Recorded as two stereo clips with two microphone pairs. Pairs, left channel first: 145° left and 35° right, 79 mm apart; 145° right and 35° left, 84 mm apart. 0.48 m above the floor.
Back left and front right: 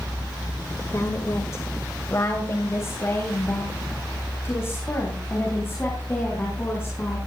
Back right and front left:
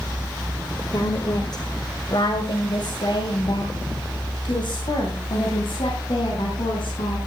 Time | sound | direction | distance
0.9 | a woman speaking | 175° right | 1.9 m